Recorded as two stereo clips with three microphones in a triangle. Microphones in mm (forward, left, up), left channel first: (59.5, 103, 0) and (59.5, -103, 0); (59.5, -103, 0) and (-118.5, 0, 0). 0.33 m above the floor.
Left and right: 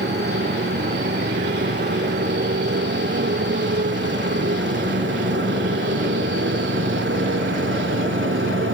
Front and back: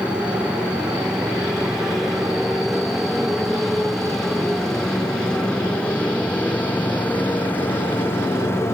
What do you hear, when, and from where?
0.0 s a motorcycle: 125° right; by 8.8 s 105° right